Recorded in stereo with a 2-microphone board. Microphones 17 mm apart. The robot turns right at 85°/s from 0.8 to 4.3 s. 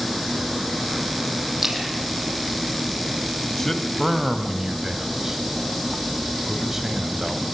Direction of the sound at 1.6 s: 20° right (ahead or behind).